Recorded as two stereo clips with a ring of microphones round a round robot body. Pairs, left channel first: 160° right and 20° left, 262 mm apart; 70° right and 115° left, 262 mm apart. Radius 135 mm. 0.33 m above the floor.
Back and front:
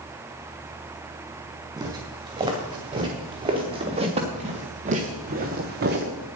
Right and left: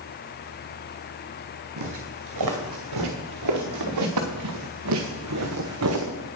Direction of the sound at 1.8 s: 100° left.